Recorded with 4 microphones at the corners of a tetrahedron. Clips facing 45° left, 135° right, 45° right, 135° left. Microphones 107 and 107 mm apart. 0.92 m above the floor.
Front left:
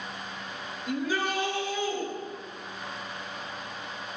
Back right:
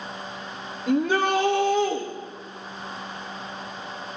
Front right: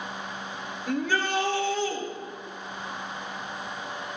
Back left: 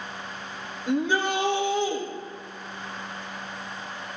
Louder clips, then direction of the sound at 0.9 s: Back right 8 dB, back left 3 dB; 155° right.